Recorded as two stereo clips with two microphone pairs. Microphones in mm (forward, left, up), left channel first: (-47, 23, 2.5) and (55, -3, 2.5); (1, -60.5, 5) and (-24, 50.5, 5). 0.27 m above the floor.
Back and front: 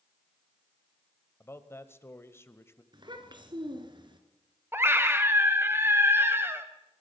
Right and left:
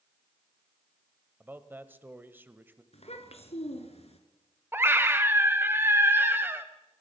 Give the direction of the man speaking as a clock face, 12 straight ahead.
7 o'clock.